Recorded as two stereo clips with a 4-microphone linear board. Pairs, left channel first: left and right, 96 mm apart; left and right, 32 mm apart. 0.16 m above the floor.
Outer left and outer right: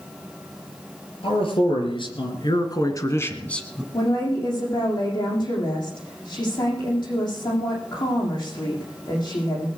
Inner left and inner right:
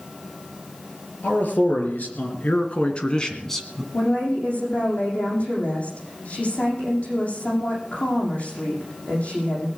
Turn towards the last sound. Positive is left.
turn(degrees=50)  # may be behind; listen again after turning